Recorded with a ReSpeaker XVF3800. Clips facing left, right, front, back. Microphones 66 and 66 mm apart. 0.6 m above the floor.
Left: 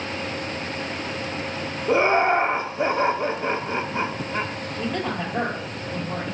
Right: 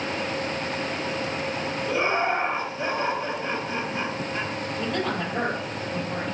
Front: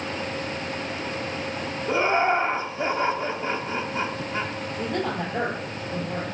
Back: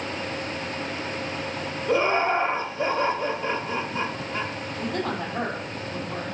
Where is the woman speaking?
5° left, 3.5 m.